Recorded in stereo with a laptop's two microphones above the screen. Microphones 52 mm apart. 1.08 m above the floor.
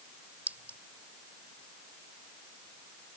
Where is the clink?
35° right (ahead or behind).